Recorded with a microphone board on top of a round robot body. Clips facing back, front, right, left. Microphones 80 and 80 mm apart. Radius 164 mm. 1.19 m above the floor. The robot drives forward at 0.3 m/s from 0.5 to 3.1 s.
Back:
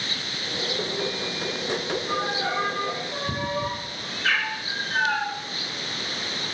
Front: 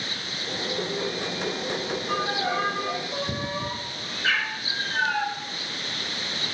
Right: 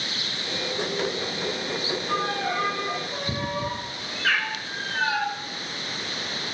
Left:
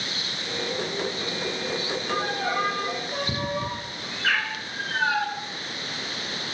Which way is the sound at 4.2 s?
75° left.